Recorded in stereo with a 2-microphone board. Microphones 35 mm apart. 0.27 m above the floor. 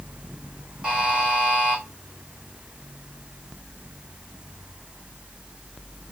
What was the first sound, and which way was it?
A buzzer, 35° right (ahead or behind).